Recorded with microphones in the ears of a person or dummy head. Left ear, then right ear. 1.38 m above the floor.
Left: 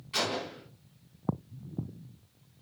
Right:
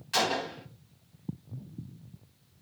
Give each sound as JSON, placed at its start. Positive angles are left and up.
{"t": 0.1, "sound": "a gunshot", "side_deg": -50, "distance_m": 1.5}